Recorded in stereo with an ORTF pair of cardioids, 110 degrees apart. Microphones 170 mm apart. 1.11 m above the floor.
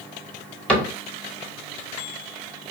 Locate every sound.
0.7 s a cupboard door: 5° left, 1.0 m